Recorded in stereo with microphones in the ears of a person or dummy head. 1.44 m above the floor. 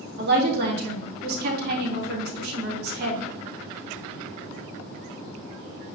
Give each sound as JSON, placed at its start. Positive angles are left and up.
{"t": 0.2, "sound": "a woman speaking", "side_deg": -50, "distance_m": 3.5}